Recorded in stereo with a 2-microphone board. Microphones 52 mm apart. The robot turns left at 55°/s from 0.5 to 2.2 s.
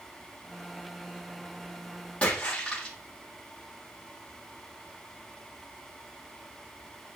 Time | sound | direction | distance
2.2 | a splash | 25° left (ahead or behind) | 6.5 m